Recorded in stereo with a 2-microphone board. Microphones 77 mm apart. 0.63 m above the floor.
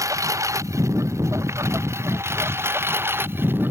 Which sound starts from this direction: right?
A lawn mower, at 0.0 s.